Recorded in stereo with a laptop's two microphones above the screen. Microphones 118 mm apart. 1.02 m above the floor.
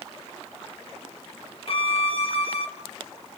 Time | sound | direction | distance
1.7 | a violin | 55° left (ahead or behind) | 1.5 m